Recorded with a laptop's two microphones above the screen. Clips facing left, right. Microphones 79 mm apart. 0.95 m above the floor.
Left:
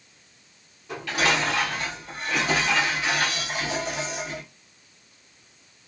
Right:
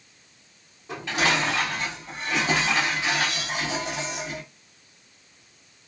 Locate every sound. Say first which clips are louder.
0.9 s dishes clattering: even; 25° right (ahead or behind), 1.6 m